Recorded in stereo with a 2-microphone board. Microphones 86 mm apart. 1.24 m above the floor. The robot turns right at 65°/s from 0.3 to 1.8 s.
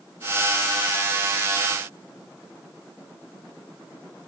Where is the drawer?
I don't hear a drawer.